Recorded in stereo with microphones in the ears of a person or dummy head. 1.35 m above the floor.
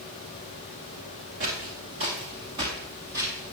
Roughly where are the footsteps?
Right.